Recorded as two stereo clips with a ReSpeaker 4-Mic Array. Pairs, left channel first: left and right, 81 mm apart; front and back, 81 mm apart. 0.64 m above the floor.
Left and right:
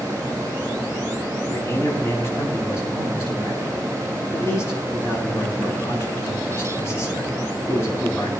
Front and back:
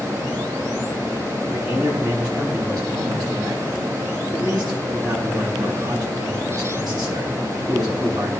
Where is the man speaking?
145° left, 6.5 m.